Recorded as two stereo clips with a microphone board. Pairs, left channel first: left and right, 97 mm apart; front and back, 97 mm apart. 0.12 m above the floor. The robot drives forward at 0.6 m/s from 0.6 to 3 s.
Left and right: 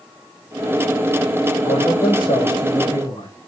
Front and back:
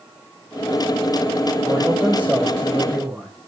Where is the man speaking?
105° left, 8.5 m; by 3.3 s 110° left, 9 m.